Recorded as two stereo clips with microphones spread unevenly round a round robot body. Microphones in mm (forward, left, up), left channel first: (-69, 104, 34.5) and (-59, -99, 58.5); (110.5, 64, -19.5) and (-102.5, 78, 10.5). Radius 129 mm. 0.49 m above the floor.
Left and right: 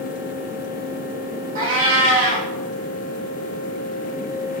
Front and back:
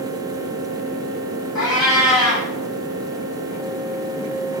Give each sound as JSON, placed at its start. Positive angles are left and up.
{"t": 1.6, "sound": "a cat meowing", "azimuth_deg": -95, "distance_m": 3.0}